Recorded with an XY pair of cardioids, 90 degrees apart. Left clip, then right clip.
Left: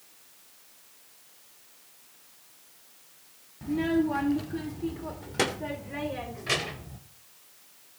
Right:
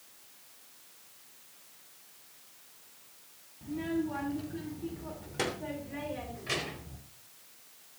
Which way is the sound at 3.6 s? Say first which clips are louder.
Left 7 dB; 65° left.